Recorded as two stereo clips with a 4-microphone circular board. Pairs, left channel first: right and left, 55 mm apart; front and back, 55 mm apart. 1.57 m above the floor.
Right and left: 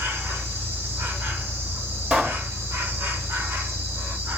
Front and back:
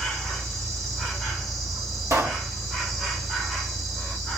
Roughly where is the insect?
Left.